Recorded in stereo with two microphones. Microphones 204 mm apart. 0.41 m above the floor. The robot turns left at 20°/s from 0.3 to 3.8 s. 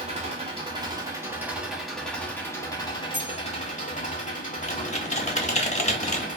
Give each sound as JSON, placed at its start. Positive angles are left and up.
{"t": 0.0, "sound": "an engine running", "azimuth_deg": -150, "distance_m": 0.9}
{"t": 3.1, "sound": "cutlery clinking", "side_deg": -35, "distance_m": 1.0}
{"t": 4.7, "sound": "typing on a keyboard", "side_deg": 35, "distance_m": 0.6}